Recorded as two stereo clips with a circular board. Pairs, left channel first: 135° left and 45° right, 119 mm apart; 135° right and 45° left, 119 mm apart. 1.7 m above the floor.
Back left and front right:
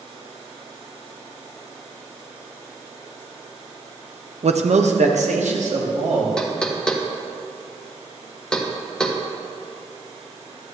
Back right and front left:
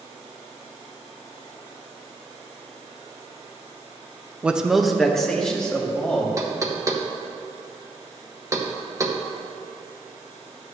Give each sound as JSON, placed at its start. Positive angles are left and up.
{"t": 4.4, "sound": "a man speaking", "azimuth_deg": -30, "distance_m": 0.5}
{"t": 6.4, "sound": "knocking", "azimuth_deg": 60, "distance_m": 0.8}